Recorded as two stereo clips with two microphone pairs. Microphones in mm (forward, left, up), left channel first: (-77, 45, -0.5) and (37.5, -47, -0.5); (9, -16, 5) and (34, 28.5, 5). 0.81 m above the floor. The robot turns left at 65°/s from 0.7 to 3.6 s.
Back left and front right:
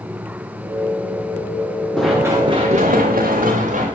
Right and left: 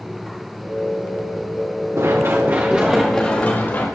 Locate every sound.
2.0 s running footsteps: 55° left, 3.5 m; by 3.9 s 65° right, 4.5 m